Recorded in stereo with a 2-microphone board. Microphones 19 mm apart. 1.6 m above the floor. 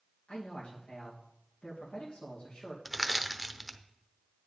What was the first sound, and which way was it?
A man speaking, 65° left (ahead or behind).